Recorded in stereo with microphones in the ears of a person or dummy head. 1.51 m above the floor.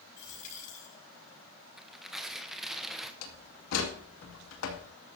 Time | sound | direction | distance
0.2 | a dropped coin | 50° left (ahead or behind) | 6 m
1.8 | tearing paper | 5° right (ahead or behind) | 0.9 m
3.2 | a door slam | 75° left (ahead or behind) | 2.5 m